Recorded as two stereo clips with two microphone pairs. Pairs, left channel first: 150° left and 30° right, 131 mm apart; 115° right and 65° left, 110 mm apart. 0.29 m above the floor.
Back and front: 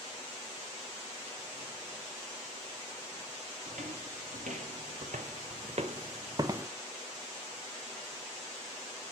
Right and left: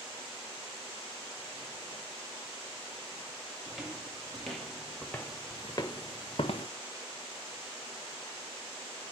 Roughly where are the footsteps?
Ahead.